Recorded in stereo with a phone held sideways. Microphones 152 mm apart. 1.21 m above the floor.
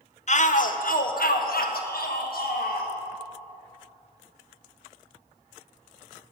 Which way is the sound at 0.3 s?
50° left (ahead or behind).